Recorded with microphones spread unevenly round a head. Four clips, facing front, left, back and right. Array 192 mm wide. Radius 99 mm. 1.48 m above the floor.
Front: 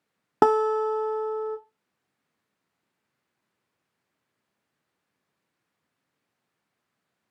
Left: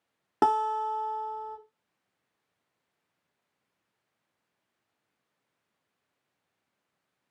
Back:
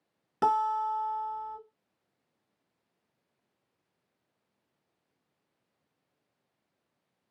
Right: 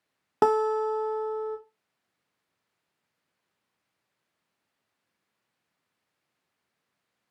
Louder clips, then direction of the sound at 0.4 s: Right 2 dB, front 6 dB; 5° right.